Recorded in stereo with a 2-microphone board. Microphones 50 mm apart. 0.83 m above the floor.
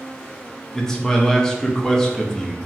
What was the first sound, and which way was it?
A man speaking, 10° left (ahead or behind).